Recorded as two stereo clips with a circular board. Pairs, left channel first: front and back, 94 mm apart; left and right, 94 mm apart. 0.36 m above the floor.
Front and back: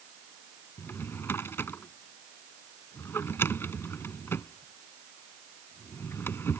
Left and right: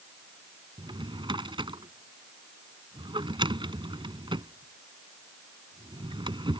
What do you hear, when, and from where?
0.8 s a drawer: 65° right